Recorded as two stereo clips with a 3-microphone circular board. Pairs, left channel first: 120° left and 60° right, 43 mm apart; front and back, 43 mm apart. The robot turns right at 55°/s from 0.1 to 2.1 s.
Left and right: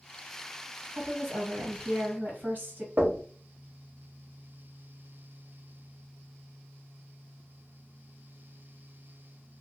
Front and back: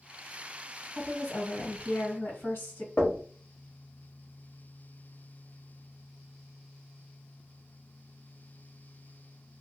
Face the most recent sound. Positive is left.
turn(degrees=-45)